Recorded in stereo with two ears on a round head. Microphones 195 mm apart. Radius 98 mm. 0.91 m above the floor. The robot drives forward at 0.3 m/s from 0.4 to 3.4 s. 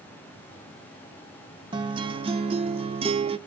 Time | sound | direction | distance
1.7 | a guitar | 20° right (ahead or behind) | 0.6 m